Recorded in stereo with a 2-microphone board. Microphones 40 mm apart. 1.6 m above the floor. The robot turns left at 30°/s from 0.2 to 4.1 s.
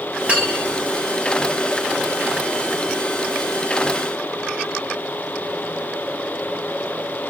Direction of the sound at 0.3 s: 30° right (ahead or behind).